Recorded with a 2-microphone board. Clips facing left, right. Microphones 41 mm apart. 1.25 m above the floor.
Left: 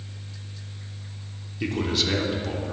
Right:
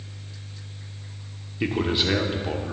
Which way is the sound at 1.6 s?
25° right (ahead or behind).